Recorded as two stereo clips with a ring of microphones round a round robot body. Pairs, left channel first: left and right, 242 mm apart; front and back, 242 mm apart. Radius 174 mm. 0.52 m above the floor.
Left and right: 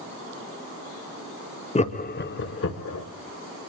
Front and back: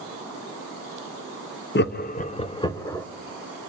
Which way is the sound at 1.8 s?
30° left.